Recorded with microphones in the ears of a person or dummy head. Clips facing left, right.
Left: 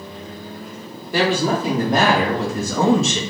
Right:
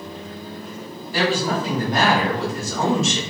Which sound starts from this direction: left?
A woman speaking, at 1.1 s.